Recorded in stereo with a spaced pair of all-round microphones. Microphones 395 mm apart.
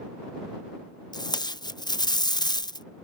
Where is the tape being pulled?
10° left (ahead or behind).